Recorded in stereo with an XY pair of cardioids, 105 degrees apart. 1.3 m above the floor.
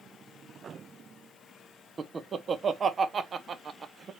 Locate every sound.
2.0 s laughter: 40° right, 0.6 m